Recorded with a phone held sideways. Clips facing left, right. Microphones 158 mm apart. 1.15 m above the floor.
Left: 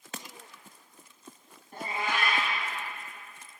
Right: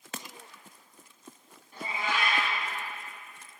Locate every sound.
1.7 s a cat meowing: 55° left (ahead or behind), 2 m